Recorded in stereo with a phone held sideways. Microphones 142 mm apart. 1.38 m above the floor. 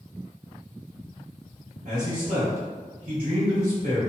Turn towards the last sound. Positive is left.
turn(degrees=-65)  # may be behind; listen again after turning